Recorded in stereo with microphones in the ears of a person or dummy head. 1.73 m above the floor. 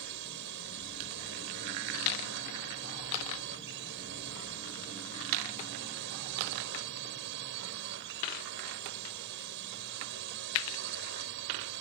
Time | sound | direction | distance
0.0 | a drone | 65° right (ahead or behind) | ?